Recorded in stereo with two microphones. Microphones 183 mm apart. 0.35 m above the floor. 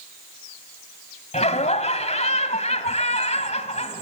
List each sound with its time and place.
1.3 s laughter: 35° left (ahead or behind), 2.0 m